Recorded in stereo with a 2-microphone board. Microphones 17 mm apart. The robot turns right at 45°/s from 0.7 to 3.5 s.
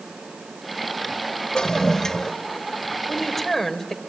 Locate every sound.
1.6 s a toilet flushing: 120° left, 0.7 m; by 2.3 s 155° left, 0.7 m
3.1 s a woman speaking: 5° right (ahead or behind), 2.5 m; by 4.0 s 15° left (ahead or behind), 2.5 m